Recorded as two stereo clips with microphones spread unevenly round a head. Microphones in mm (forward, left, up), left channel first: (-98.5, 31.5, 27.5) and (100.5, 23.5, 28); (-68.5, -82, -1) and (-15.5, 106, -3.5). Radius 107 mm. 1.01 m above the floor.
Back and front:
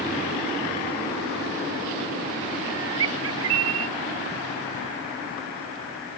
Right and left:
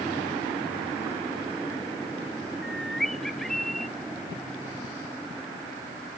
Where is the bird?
15° right.